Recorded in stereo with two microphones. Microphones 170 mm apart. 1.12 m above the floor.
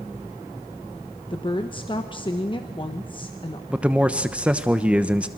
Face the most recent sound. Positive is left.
turn(degrees=-10)  # may be behind; listen again after turning